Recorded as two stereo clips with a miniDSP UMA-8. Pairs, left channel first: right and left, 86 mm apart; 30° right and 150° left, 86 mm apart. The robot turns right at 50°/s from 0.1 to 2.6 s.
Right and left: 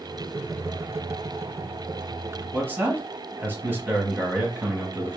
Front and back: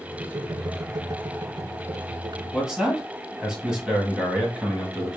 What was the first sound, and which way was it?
A man speaking, 75° left.